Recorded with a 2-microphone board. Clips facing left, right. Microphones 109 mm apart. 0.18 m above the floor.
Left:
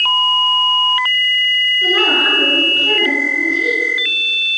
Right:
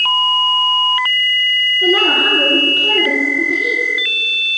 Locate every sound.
1.8 s a woman speaking: 20° right (ahead or behind), 2.5 m